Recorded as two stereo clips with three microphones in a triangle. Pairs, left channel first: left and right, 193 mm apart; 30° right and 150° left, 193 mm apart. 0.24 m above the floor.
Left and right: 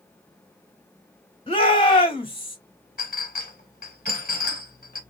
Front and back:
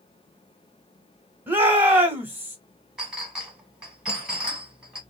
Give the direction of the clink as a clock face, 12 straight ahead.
10 o'clock.